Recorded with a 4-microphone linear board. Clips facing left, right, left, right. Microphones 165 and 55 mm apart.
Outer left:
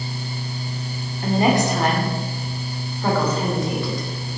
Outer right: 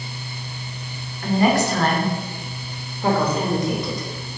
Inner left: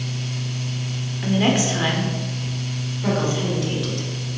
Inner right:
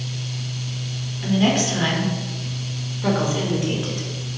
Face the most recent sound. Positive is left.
turn(degrees=-20)  # may be behind; listen again after turning